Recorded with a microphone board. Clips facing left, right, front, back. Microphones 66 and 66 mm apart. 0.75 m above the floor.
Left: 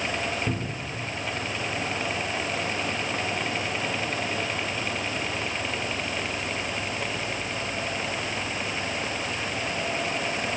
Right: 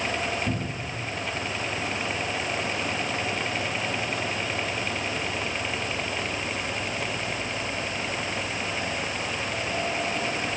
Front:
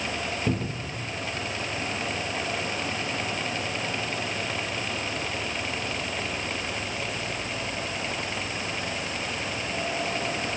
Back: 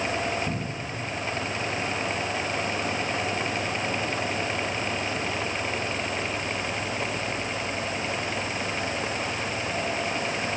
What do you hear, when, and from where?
0.5 s a cupboard door: 15° left, 2.5 m